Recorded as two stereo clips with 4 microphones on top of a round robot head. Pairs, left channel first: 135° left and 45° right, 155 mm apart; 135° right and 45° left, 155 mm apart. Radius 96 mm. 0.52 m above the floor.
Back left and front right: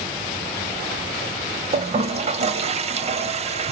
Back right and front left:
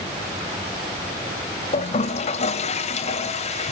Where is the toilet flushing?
90° right, 1.8 m.